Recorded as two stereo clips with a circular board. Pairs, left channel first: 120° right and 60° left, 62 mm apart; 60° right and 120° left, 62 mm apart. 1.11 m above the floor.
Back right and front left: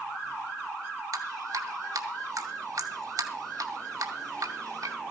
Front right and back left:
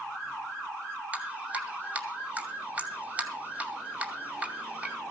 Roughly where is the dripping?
Ahead left.